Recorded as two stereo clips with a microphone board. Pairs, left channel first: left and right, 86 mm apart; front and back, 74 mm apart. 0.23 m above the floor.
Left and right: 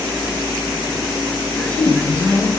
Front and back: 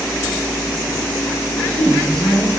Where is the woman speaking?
50° left, 1.0 m.